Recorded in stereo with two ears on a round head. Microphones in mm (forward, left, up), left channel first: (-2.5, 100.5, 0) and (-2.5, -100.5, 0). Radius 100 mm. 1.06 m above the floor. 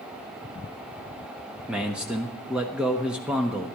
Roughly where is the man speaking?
Centre.